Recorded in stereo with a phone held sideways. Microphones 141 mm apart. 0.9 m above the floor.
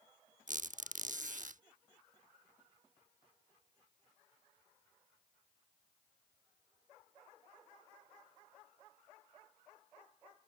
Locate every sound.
0.5 s a squeak: 60° right (ahead or behind)